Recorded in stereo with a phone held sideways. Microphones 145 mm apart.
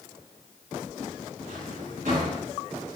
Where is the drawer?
70° right (ahead or behind), 7.5 m.